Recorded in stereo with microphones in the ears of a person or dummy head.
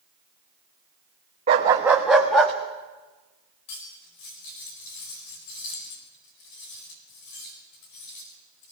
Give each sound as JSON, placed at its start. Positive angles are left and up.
{"t": 1.5, "sound": "a dog barking", "side_deg": -20, "distance_m": 1.0}
{"t": 3.7, "sound": "cutlery clinking", "side_deg": 65, "distance_m": 5.0}